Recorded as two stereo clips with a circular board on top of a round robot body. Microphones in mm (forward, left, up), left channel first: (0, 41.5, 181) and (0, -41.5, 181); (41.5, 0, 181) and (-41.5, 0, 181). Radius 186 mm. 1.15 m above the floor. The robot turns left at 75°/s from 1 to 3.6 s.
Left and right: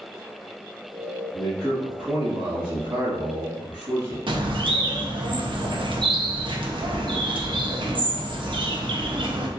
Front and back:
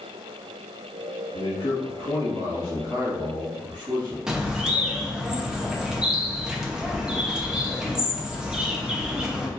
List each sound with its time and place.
1.3 s a man speaking: 40° left, 2.0 m; by 4.2 s 130° right, 2.0 m
4.3 s a bird: 100° right, 0.9 m